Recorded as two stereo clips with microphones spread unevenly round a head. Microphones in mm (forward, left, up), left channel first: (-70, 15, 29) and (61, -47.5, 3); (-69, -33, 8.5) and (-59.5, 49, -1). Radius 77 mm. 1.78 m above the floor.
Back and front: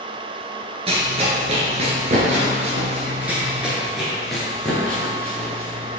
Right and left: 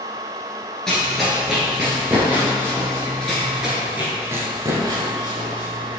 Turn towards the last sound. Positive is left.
turn(degrees=85)